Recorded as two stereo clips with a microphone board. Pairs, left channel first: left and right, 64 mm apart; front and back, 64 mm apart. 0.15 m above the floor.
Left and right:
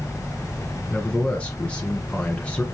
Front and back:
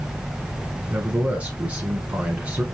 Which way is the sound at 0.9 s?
140° left.